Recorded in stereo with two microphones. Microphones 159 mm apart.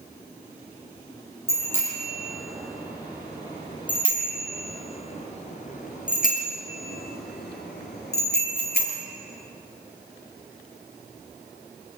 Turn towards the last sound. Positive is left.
turn(degrees=80)